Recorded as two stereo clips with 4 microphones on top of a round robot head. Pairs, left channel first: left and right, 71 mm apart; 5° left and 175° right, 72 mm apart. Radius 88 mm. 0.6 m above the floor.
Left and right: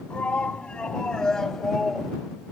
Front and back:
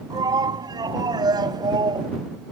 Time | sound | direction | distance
0.1 | a shout | 165° left | ?